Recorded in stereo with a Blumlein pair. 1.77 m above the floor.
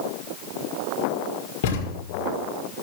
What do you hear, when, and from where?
1.6 s a thud: 50° left, 5.5 m